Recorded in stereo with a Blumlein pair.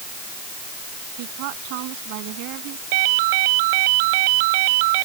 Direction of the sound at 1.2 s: 45° right.